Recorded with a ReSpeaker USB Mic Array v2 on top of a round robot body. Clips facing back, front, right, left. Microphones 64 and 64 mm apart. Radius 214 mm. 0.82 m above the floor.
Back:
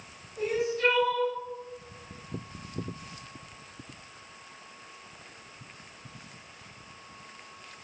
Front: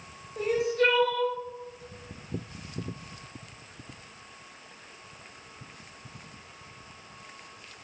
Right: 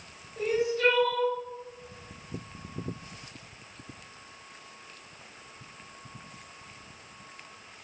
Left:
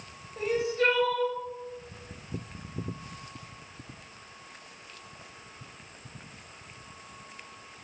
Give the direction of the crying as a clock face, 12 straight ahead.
11 o'clock.